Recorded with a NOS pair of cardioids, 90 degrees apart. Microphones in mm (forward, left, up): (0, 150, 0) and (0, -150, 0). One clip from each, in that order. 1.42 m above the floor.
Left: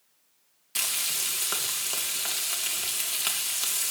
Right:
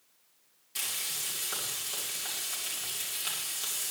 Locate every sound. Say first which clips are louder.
0.8 s frying: left 6 dB; 60° left, 2 m